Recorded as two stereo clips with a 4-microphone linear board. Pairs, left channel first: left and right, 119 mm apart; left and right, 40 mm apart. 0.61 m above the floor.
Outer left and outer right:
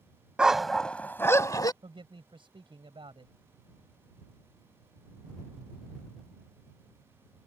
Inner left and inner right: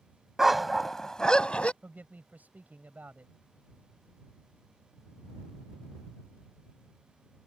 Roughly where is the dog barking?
Centre.